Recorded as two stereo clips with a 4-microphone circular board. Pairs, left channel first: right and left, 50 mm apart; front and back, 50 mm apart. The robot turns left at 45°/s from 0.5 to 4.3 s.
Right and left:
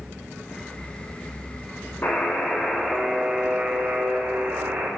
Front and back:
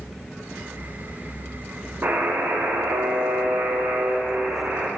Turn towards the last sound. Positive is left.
turn(degrees=125)